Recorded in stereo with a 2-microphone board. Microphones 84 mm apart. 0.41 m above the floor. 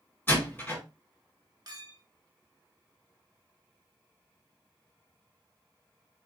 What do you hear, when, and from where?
0.3 s a door slam: 25° left (ahead or behind), 2.5 m
1.7 s a clink: 50° right (ahead or behind), 0.8 m